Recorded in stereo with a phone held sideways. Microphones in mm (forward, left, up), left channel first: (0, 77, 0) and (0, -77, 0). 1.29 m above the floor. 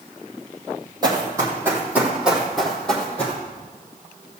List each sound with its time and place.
1.0 s running footsteps: 25° right (ahead or behind), 3 m; by 3.4 s 10° left (ahead or behind), 3.5 m